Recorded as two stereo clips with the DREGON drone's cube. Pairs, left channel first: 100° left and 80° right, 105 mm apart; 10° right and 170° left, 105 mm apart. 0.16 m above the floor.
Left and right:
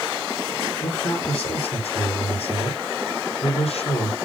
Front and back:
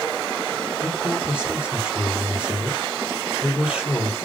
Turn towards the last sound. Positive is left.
turn(degrees=90)